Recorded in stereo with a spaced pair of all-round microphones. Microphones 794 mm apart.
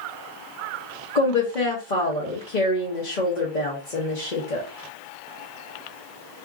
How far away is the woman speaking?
About 1.0 m.